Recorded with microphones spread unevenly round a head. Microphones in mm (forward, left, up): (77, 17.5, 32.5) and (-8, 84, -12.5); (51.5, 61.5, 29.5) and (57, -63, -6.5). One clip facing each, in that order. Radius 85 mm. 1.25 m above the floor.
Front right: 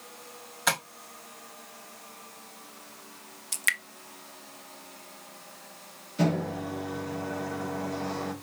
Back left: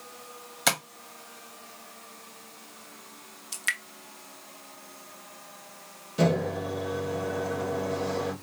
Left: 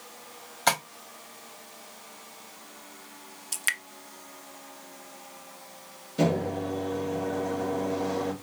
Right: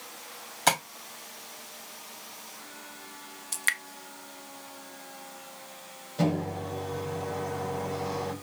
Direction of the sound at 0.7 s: 175° right.